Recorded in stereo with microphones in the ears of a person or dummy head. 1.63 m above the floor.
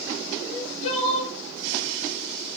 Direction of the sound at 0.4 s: 40° left (ahead or behind).